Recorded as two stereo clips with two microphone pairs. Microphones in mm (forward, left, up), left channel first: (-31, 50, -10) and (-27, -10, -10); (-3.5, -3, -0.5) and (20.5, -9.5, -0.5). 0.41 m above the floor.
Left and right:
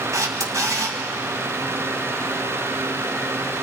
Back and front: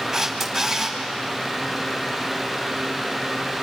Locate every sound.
0.1 s a camera shutter: 95° right, 3 m